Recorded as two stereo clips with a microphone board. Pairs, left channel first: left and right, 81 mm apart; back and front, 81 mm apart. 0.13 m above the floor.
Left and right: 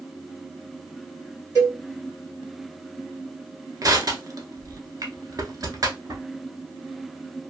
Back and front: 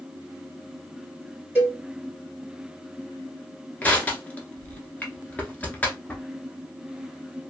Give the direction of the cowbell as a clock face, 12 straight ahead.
2 o'clock.